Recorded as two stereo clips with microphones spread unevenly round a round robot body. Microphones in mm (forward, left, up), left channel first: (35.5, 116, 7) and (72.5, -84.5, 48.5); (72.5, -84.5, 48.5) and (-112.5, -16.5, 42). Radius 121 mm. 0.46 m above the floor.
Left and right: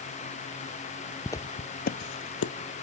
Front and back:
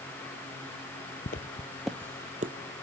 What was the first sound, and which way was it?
Footsteps, 15° left.